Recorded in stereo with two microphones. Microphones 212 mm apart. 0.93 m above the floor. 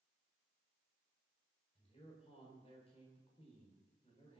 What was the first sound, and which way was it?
A man speaking, 25° left (ahead or behind).